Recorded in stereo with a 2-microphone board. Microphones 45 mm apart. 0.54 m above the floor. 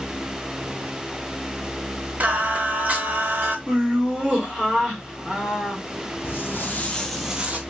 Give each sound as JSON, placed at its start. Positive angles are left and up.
{"t": 2.2, "sound": "singing", "side_deg": -35, "distance_m": 0.7}
{"t": 3.7, "sound": "laughter", "side_deg": -20, "distance_m": 1.5}
{"t": 6.2, "sound": "footsteps", "side_deg": 60, "distance_m": 1.2}